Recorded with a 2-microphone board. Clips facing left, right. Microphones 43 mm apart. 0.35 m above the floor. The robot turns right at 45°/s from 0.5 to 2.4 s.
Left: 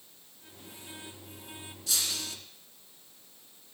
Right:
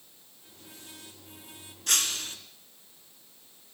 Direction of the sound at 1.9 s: 60° right (ahead or behind).